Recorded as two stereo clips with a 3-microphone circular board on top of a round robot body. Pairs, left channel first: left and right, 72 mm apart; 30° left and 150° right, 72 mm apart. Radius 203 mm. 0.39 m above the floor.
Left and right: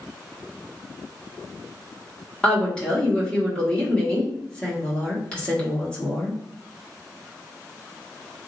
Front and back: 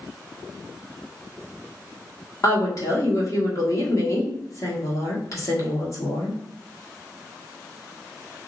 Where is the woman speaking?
20° left, 1.7 m.